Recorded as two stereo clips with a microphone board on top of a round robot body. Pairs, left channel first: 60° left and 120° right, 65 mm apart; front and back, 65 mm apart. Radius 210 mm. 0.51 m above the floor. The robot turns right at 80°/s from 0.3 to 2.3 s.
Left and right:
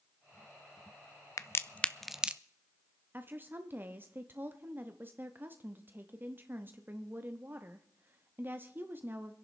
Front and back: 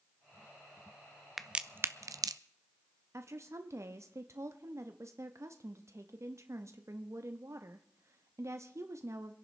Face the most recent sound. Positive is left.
turn(degrees=-165)